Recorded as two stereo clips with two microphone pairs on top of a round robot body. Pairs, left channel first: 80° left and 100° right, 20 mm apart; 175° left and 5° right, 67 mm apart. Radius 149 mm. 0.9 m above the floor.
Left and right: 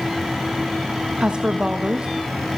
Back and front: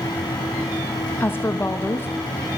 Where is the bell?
I don't hear a bell.